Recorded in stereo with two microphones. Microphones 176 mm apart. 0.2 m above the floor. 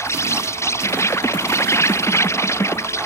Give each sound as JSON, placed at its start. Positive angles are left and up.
{"t": 0.0, "sound": "an insect", "side_deg": 15}